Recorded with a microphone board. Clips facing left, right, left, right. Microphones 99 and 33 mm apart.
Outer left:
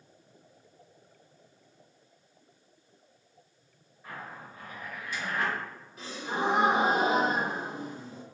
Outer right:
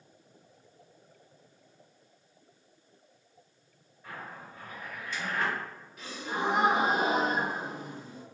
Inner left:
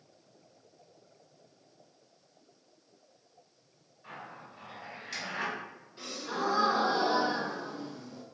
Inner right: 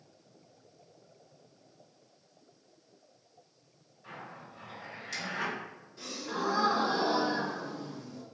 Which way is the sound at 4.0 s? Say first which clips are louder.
Outer left 1 dB, even; 10° left (ahead or behind).